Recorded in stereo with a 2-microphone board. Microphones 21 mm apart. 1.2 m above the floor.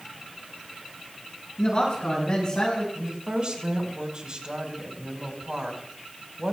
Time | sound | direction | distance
1.6 | a man speaking | 35° left (ahead or behind) | 6.5 m
3.0 | a woman speaking | 50° right (ahead or behind) | 5 m